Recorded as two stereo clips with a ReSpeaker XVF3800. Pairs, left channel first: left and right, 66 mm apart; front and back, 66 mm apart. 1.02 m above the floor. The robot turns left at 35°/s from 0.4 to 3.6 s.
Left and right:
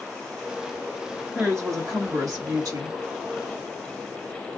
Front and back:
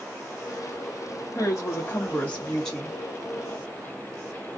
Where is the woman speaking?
35° right, 1.1 m; by 3.0 s 90° right, 1.1 m.